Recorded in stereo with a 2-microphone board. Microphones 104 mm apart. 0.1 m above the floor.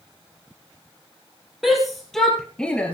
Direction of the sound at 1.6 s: Centre (ahead or behind).